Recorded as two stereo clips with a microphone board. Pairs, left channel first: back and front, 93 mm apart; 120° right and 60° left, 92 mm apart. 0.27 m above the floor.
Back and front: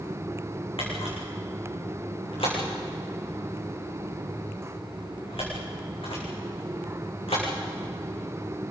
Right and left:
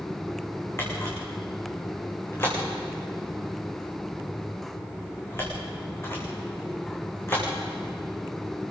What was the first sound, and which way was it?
A camera shutter, 175° left.